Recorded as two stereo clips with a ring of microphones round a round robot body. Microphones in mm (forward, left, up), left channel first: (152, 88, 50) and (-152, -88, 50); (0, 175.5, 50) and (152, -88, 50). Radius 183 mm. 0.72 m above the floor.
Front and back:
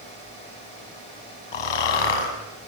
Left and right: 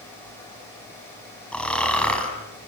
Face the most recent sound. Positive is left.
turn(degrees=35)